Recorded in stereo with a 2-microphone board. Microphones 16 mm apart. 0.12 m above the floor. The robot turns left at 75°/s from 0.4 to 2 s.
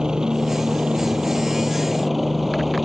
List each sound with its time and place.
0.0 s a helicopter: 50° right; by 2.9 s 170° right